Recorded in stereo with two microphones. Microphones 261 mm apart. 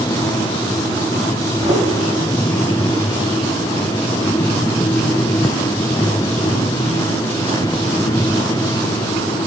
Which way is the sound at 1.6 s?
15° right (ahead or behind).